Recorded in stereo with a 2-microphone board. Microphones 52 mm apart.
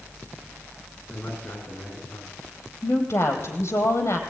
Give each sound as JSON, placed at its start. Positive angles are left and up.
{"t": 1.1, "sound": "a man speaking", "side_deg": 50, "distance_m": 9.5}
{"t": 2.8, "sound": "a woman speaking", "side_deg": 55, "distance_m": 4.0}